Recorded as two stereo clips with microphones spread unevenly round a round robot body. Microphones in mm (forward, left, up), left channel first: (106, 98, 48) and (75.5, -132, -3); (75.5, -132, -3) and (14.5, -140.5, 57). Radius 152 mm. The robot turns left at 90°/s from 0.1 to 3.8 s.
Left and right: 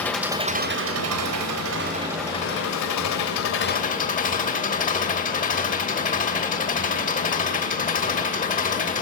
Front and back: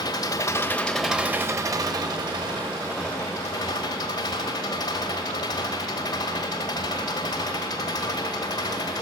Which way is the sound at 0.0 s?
Straight ahead.